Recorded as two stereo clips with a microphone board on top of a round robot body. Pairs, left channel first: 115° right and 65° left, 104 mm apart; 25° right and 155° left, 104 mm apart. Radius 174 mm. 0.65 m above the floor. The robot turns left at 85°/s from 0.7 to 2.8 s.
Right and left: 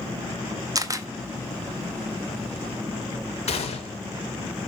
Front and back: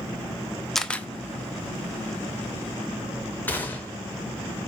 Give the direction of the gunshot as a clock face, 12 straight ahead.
3 o'clock.